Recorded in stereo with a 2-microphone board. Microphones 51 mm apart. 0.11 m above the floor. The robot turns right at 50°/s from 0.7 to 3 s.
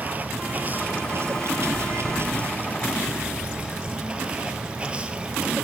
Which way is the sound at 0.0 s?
140° right.